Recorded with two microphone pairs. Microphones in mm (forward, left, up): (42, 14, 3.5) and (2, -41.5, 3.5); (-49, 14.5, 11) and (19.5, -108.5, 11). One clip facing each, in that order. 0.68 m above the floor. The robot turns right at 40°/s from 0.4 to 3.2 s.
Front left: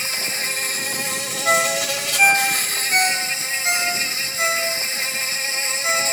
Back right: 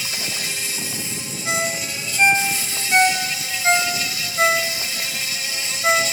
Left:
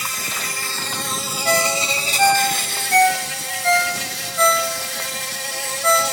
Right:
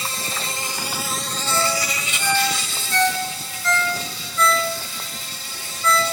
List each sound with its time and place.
0.0 s an insect: straight ahead, 1.6 m; by 6.1 s 110° left, 1.6 m
1.4 s a ringtone: 105° left, 3.5 m; by 6.0 s 175° left, 3.5 m